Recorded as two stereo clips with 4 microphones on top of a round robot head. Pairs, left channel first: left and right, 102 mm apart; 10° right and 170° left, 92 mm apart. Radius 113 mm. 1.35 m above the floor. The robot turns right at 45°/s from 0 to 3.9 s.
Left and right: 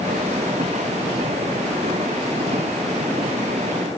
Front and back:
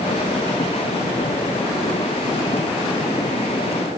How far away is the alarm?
No alarm in this recording.